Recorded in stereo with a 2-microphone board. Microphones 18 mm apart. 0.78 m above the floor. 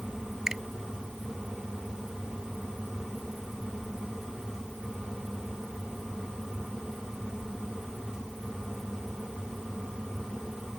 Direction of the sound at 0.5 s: 40° right (ahead or behind).